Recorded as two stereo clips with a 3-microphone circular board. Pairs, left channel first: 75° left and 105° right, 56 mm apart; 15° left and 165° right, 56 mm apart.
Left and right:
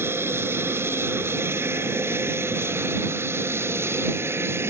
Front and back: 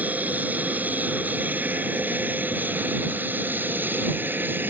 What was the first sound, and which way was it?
An aircraft, 115° right.